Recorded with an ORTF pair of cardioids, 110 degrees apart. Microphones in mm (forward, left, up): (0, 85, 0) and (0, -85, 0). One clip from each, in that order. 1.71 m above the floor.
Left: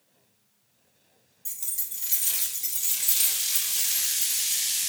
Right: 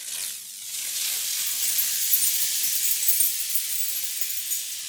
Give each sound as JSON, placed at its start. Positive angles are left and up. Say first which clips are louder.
{"t": 1.4, "sound": "keys jangling", "louder": "right 11 dB", "azimuth_deg": -5, "distance_m": 2.5}